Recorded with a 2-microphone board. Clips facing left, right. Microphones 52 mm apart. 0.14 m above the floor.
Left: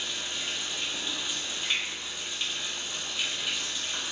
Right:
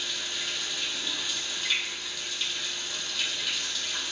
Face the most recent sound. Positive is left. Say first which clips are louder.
# right 1 dB
turn(degrees=20)  # may be behind; listen again after turning